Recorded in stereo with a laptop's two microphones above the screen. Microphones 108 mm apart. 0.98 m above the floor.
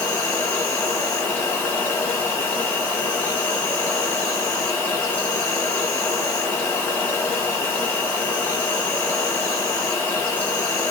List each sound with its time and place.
0.0 s an insect: 15° left (ahead or behind), 1.3 m